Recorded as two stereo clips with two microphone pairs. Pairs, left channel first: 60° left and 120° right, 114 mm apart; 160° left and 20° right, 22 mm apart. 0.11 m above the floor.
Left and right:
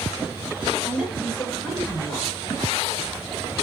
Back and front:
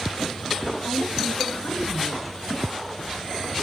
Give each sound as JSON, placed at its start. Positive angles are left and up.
{"t": 0.8, "sound": "a woman speaking", "azimuth_deg": 150, "distance_m": 9.0}